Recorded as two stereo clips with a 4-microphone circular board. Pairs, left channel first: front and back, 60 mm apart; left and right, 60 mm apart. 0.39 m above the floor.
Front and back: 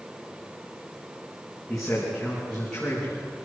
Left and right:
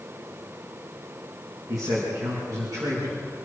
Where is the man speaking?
85° right, 5.5 m; by 3.2 s 80° right, 6 m.